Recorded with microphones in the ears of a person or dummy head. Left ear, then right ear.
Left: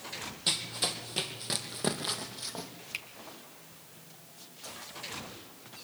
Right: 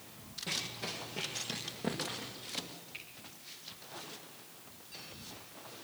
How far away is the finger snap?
About 3 m.